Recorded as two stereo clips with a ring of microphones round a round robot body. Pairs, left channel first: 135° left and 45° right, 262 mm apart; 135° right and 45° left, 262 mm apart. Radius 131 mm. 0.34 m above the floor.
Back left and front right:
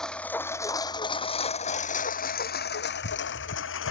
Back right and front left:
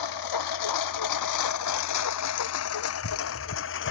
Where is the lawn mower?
140° right; by 3.9 s straight behind.